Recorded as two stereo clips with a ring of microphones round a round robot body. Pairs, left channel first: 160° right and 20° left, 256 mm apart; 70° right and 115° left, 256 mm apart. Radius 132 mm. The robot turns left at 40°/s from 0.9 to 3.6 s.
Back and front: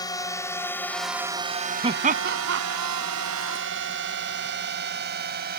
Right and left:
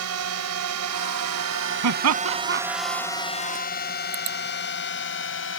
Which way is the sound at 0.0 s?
130° left.